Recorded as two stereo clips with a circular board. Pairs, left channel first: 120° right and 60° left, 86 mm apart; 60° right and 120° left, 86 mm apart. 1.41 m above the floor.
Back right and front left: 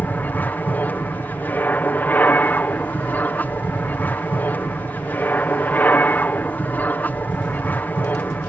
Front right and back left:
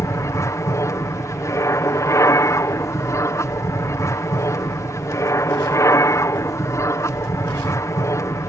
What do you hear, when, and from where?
0.0 s an aircraft: 65° right